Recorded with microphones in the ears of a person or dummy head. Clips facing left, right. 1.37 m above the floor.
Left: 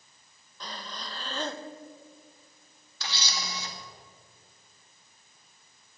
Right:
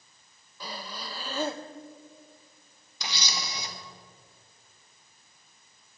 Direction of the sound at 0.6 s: 15° right (ahead or behind).